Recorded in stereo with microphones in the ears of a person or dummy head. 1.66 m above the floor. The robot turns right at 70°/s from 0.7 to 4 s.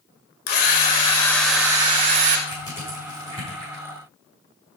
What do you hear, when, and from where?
0.5 s a drill: 125° left, 2 m; by 2.4 s 120° right, 2 m
2.5 s crushing: 30° left (ahead or behind), 6.5 m; by 3.8 s 65° right (ahead or behind), 6.5 m